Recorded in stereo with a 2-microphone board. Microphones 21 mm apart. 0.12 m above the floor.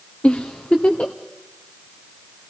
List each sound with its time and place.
0.2 s a giggle: 60° left (ahead or behind), 1.9 m